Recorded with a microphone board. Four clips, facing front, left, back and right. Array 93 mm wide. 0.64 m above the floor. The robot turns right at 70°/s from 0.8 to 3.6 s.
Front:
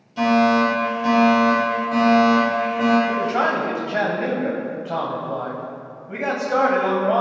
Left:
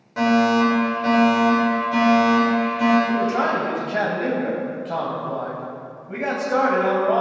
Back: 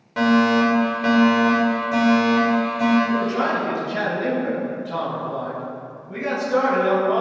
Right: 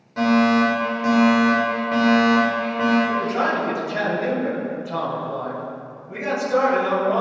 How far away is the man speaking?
About 3.5 m.